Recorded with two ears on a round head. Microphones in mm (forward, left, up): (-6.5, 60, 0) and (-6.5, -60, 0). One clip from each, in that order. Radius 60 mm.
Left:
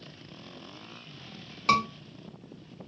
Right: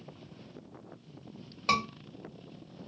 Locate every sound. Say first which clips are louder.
1.7 s a scream: left 4 dB; 20° left (ahead or behind), 2.5 m